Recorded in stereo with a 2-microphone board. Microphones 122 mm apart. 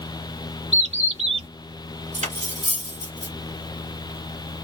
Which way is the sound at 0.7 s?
60° right (ahead or behind).